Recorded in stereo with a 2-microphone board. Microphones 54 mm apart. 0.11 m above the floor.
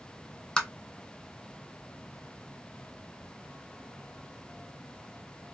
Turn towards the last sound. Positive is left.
turn(degrees=15)  # may be behind; listen again after turning